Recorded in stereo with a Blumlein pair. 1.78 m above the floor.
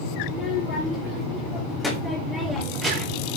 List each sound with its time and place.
0.2 s a child speaking: 30° left, 4 m; by 3.3 s 35° right, 3 m